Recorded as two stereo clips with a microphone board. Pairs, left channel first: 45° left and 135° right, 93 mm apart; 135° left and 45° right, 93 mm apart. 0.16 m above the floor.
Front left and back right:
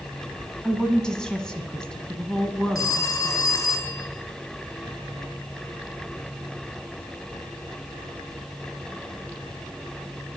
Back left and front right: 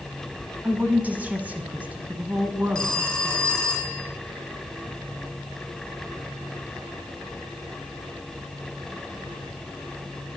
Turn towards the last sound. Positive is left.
turn(degrees=60)